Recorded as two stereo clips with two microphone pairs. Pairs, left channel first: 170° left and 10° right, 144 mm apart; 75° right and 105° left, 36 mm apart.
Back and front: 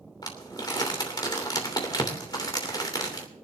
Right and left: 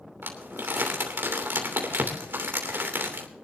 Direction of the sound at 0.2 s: 110° left.